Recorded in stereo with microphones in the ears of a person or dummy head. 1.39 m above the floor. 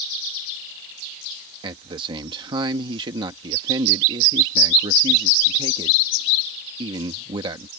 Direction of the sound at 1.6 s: 25° right (ahead or behind).